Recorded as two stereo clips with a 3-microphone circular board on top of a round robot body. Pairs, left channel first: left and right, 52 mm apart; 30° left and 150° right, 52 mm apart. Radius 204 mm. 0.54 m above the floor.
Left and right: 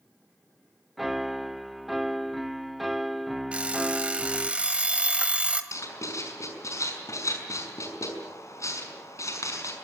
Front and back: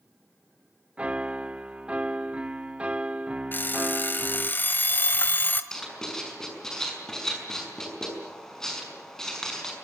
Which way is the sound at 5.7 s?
110° left.